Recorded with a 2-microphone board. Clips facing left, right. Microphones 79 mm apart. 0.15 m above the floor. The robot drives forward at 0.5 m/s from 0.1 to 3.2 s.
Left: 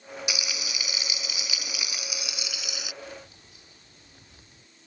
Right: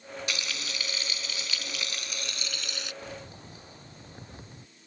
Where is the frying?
10° left (ahead or behind).